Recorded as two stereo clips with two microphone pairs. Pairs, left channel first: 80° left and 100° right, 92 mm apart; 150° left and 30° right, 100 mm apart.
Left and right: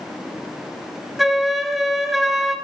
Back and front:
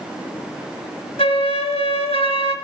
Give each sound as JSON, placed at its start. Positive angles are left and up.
{"t": 1.2, "sound": "a flute", "azimuth_deg": 165, "distance_m": 0.8}